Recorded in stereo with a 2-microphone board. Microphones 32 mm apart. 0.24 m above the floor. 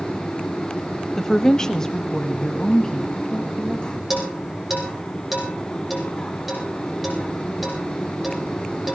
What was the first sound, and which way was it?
A woman speaking, 10° left (ahead or behind).